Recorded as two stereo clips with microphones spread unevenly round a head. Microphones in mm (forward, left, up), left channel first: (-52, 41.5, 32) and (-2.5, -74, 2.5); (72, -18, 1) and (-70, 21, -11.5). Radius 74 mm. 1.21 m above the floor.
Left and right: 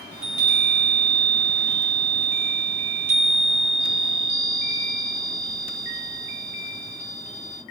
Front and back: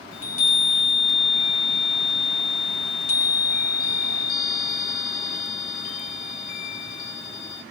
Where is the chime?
20° right, 1.5 m.